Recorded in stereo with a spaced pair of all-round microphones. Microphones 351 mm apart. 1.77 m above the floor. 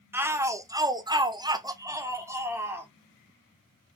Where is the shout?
5° right (ahead or behind), 0.7 m.